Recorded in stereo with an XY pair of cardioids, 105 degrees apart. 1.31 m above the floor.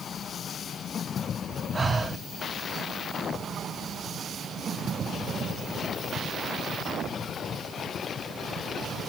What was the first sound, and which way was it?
Breathing, 25° right.